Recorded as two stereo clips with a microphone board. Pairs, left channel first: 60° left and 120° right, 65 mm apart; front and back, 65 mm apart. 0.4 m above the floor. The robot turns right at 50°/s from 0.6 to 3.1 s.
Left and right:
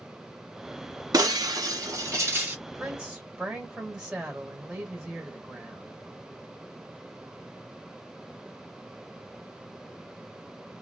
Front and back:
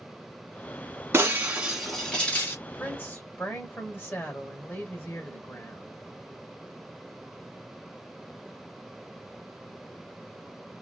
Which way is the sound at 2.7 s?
60° right.